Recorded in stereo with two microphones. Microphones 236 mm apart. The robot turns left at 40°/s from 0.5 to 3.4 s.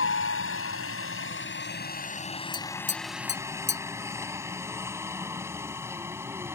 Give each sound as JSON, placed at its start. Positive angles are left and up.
{"t": 0.0, "sound": "a helicopter", "side_deg": 60}
{"t": 2.5, "sound": "tapping", "side_deg": 20}